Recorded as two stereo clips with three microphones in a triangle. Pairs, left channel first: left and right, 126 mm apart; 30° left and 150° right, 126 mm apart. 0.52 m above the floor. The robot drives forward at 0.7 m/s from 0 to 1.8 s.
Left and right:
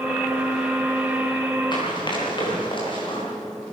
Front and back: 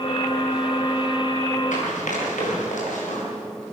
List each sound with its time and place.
1.7 s running footsteps: 35° left, 8.5 m; by 3.2 s 40° left, 7 m